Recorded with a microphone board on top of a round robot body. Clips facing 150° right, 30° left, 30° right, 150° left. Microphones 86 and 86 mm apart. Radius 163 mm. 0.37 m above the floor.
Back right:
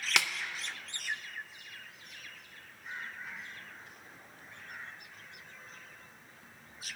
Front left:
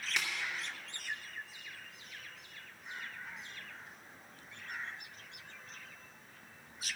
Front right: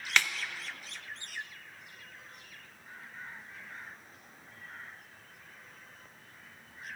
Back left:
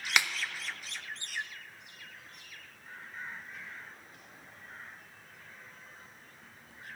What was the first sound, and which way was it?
A snare drum, 135° right.